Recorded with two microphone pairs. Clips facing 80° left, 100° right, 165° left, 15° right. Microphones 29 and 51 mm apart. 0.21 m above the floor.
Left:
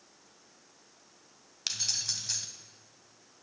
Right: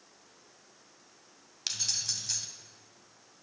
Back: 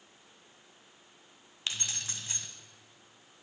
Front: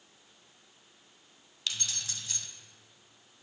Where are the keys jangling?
155° left, 0.7 m.